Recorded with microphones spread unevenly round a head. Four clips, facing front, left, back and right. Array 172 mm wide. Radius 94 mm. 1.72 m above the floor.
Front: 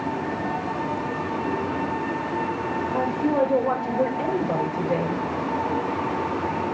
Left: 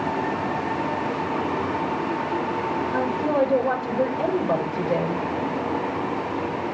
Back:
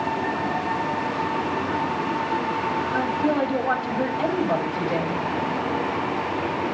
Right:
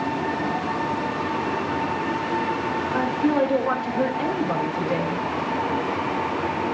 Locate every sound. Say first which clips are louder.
2.9 s a woman speaking: right 2 dB, front 1 dB; 70° left, 7 m